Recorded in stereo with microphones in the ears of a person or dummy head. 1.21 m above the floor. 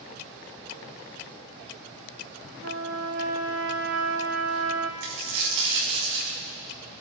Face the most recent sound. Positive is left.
turn(degrees=-60)  # may be behind; listen again after turning